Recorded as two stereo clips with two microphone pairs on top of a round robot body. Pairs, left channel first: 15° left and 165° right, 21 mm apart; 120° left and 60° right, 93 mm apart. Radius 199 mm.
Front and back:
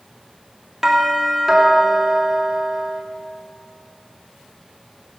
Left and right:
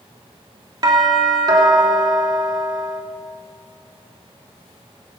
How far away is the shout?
No shout in this recording.